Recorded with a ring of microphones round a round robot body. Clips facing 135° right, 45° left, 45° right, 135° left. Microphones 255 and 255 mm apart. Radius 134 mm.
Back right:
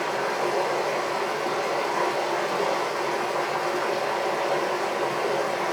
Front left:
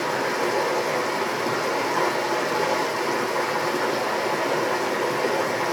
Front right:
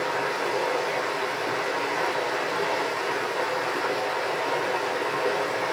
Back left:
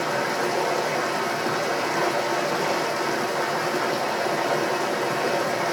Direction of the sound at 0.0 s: 110° left.